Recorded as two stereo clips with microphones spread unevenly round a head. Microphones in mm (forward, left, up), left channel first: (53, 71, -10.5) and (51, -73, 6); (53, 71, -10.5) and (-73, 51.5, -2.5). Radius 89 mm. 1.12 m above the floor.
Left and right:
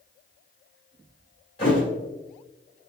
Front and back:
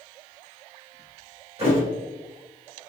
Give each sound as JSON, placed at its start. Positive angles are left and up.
{"t": 1.6, "sound": "a thud", "azimuth_deg": 155, "distance_m": 1.6}